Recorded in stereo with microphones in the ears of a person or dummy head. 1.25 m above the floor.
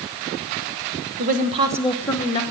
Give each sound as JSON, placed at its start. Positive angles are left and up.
{"t": 1.2, "sound": "a woman speaking", "side_deg": -55, "distance_m": 1.2}